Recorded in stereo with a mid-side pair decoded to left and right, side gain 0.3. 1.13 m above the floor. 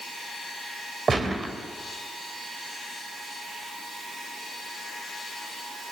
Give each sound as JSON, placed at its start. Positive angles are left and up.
{"t": 1.1, "sound": "a gunshot", "azimuth_deg": -55, "distance_m": 3.5}